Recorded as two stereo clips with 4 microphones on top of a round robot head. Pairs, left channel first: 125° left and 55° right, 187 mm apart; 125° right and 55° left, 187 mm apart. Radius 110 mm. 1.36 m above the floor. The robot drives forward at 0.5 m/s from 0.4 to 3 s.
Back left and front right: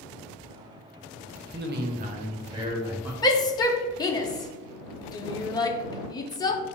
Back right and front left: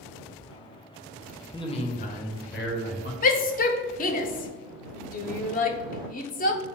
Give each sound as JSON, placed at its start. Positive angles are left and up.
{"t": 1.5, "sound": "a man speaking", "azimuth_deg": -65, "distance_m": 0.7}
{"t": 3.2, "sound": "a shout", "azimuth_deg": -165, "distance_m": 0.5}